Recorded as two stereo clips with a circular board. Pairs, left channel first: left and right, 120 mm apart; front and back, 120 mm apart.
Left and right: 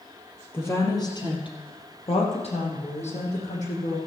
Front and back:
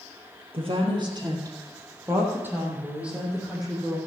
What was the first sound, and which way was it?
A woman speaking, 155° left.